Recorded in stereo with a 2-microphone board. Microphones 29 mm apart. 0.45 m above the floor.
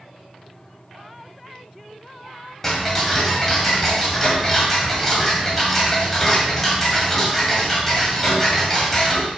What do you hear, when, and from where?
2.6 s ticking: 10° left (ahead or behind), 1.7 m